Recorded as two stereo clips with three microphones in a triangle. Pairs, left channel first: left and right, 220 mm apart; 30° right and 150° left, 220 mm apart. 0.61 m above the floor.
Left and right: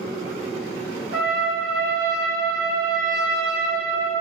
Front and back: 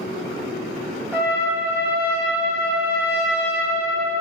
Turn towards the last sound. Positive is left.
turn(degrees=-130)